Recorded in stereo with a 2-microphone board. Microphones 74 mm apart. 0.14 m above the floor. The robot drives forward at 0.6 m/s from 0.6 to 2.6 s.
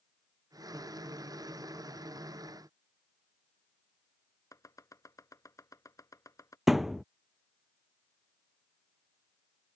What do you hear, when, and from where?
4.5 s chopping: 50° left (ahead or behind)
6.7 s a thud: 5° right (ahead or behind)